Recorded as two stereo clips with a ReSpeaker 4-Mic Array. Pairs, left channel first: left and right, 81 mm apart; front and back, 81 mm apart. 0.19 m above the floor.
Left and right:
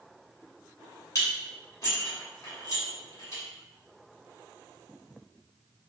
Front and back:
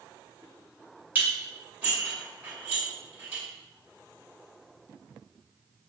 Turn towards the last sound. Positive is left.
turn(degrees=120)